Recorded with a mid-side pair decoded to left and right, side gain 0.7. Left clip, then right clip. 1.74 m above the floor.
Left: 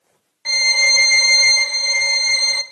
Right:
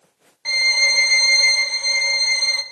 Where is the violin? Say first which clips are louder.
Left 2 dB; 15° left, 0.5 m.